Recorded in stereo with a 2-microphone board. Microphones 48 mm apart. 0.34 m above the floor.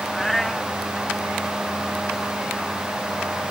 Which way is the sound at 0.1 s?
5° left (ahead or behind).